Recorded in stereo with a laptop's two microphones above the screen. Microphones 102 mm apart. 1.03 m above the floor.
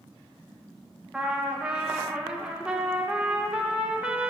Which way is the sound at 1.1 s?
10° right (ahead or behind).